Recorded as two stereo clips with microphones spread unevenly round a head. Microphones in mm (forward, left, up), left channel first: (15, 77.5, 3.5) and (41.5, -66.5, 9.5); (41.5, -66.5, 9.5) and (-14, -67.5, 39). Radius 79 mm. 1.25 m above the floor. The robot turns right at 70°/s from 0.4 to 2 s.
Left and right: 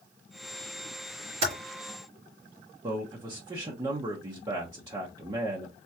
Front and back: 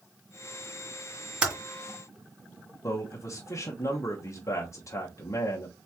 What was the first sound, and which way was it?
Typing on a keyboard, 130° right.